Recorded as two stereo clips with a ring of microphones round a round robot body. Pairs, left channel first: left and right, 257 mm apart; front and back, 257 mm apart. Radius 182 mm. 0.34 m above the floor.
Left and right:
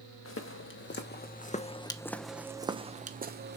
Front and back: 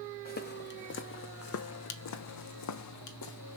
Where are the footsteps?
55° left, 1.5 m; by 3.6 s 40° right, 1.2 m.